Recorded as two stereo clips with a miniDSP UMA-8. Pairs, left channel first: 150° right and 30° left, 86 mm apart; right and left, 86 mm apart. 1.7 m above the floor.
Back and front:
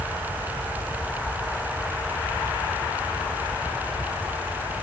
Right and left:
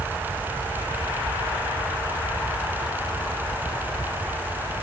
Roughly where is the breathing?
No breathing in this recording.